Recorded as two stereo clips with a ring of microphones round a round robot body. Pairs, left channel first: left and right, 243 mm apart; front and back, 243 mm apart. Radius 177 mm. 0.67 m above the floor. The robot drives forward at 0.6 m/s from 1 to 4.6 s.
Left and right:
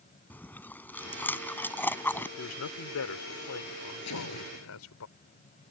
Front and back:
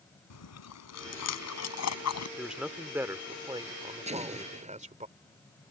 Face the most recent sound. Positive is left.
turn(degrees=120)